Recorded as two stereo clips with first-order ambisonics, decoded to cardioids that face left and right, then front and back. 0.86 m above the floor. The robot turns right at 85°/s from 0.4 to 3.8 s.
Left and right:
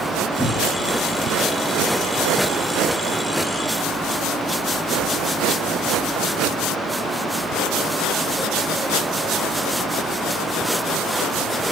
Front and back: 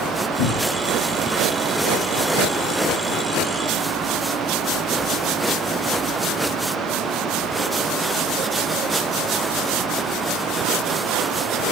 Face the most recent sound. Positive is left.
turn(degrees=-70)